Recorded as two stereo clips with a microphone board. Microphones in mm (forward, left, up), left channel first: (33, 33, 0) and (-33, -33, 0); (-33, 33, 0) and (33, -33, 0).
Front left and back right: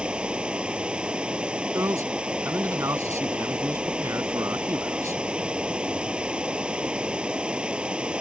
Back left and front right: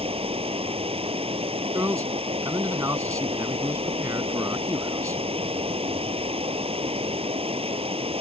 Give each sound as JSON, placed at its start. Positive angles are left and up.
{"t": 0.0, "sound": "running water", "azimuth_deg": -55}
{"t": 1.7, "sound": "a man speaking", "azimuth_deg": -90}